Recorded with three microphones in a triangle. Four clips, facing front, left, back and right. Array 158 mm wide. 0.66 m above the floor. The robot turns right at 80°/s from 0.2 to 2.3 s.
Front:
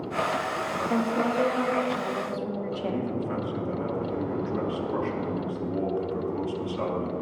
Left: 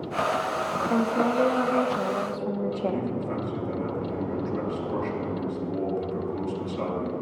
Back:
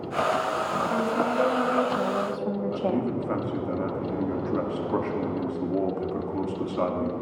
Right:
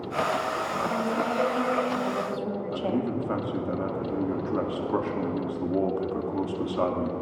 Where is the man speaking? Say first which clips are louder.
Even, back 3 dB; 130° right, 1.4 m.